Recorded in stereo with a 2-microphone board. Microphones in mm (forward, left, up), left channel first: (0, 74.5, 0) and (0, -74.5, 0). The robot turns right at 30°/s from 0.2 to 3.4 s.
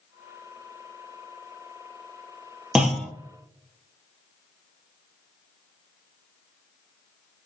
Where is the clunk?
5° right (ahead or behind), 0.9 m; by 3.1 s 5° left (ahead or behind), 0.9 m.